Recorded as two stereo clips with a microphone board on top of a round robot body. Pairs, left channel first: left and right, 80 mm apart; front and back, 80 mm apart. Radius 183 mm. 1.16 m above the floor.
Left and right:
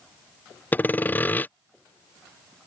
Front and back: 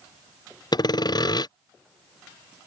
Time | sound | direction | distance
0.7 | sawing | 25° left | ?